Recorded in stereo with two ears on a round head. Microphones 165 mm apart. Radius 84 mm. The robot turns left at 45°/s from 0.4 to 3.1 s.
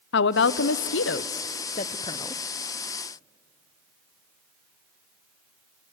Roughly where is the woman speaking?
Left.